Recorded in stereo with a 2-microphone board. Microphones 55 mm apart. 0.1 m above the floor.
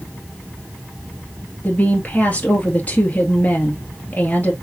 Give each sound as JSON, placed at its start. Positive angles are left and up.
{"t": 1.6, "sound": "a woman speaking", "side_deg": 30, "distance_m": 1.8}